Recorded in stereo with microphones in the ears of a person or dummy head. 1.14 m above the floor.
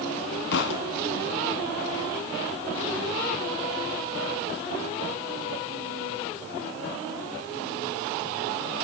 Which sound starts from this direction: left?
A thud, at 0.5 s.